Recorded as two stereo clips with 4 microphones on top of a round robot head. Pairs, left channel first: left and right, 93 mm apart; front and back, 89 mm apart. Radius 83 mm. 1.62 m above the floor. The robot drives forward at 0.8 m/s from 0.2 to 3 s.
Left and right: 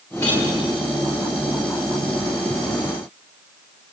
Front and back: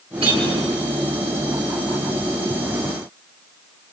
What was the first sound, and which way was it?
A clink, 160° left.